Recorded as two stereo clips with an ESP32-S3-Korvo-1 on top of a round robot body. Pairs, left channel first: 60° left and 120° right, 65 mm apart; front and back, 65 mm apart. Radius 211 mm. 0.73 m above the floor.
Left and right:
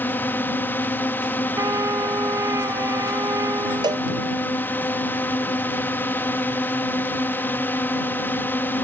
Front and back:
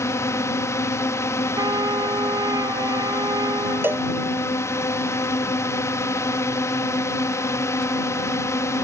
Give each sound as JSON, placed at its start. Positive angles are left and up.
{"t": 0.0, "sound": "a drone", "azimuth_deg": 10}
{"t": 1.6, "sound": "a trumpet", "azimuth_deg": -160}
{"t": 3.8, "sound": "a cowbell", "azimuth_deg": -120}